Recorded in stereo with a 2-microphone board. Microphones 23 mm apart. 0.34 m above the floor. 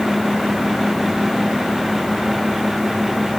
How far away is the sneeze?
I don't hear a sneeze.